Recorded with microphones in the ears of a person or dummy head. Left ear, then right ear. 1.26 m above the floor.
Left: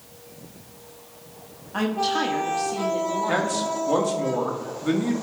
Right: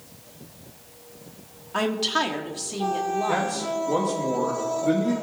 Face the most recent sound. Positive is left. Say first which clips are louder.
# left 1 dB
turn(degrees=50)  # may be behind; listen again after turning